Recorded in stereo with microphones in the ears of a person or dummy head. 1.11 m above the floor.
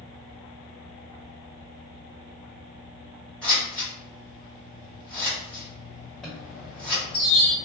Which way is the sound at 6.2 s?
5° left (ahead or behind).